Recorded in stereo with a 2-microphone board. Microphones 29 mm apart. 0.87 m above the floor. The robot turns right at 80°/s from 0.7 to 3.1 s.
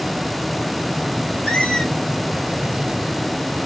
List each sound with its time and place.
1.4 s a squeak: 125° left, 1.9 m; by 1.9 s 165° left, 1.9 m